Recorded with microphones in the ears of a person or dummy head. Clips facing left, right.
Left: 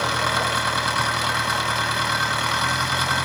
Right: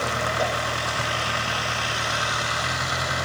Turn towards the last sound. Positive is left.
turn(degrees=75)  # may be behind; listen again after turning